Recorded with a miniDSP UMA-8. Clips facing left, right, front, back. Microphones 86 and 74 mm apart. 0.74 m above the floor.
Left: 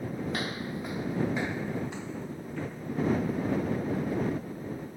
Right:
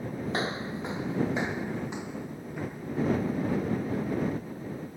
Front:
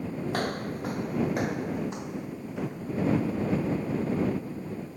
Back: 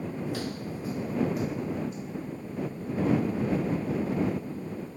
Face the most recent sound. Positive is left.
turn(degrees=-10)